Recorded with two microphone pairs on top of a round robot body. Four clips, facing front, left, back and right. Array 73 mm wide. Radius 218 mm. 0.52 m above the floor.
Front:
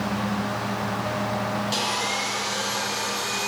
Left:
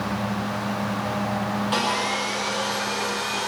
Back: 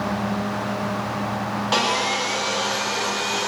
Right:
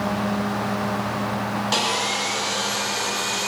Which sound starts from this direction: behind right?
Sawing, at 1.7 s.